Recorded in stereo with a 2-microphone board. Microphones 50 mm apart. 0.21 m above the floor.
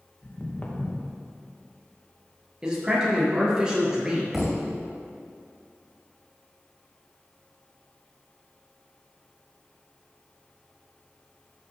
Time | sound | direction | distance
0.2 | footsteps | 35° left (ahead or behind) | 2.5 m
2.6 | a man speaking | 15° right (ahead or behind) | 3.5 m
4.3 | a thud | 5° right (ahead or behind) | 2 m